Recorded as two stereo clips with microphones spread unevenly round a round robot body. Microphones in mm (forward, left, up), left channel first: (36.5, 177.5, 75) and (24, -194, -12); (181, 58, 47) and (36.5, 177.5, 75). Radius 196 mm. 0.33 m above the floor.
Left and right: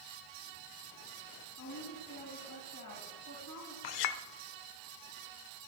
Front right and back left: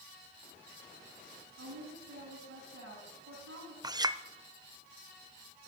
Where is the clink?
65° left, 0.8 m.